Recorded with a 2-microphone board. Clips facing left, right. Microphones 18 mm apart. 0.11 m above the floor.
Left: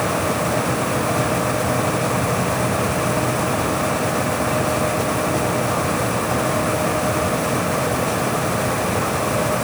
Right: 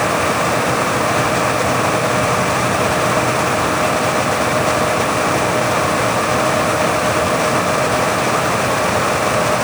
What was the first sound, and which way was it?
Only background noise.